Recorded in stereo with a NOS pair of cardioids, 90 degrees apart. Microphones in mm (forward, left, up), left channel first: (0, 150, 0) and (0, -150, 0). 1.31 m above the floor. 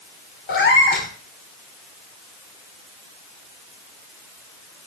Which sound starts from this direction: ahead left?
A cat meowing, at 0.5 s.